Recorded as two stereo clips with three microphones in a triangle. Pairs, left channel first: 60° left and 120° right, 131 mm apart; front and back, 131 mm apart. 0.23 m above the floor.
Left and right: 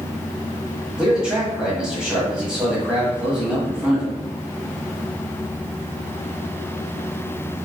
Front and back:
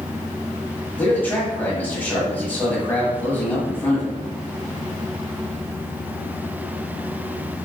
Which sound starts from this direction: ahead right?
A man speaking, at 1.0 s.